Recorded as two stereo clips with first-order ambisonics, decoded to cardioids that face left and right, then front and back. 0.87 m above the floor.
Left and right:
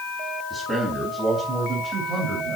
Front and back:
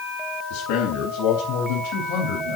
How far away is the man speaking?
About 5 m.